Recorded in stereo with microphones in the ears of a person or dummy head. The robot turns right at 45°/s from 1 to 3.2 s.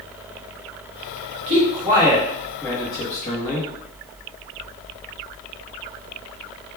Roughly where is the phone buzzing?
I don't hear a phone buzzing.